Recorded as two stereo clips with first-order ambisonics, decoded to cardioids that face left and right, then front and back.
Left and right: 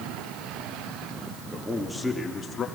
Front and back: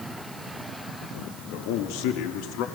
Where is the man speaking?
10° right, 1.7 m; by 2.6 s 20° left, 2.5 m.